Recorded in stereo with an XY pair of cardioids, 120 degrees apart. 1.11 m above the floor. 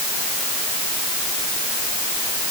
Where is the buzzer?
I don't hear a buzzer.